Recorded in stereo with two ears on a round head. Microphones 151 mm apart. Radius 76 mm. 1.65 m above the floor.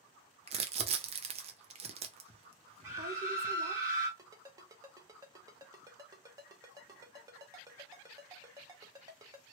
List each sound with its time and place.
0.5 s crumpling: 35° right (ahead or behind), 0.6 m
2.8 s a scream: 20° right (ahead or behind), 1.7 m
4.2 s a ringtone: 20° right (ahead or behind), 0.8 m